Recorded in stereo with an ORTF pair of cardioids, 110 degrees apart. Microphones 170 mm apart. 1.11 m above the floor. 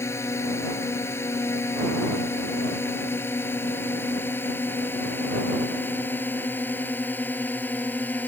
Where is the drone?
15° left; by 8.3 s 10° left.